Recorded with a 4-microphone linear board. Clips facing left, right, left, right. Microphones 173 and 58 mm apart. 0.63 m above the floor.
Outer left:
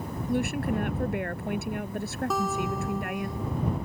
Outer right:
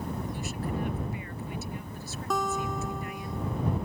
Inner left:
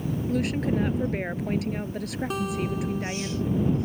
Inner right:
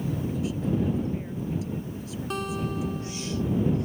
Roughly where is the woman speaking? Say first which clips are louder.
Outer left 7 dB, inner left 5 dB; left.